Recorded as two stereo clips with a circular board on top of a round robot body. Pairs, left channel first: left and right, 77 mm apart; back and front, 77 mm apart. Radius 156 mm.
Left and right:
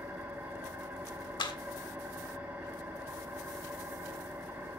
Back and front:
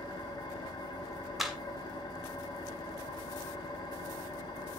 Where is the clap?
85° left, 3 m.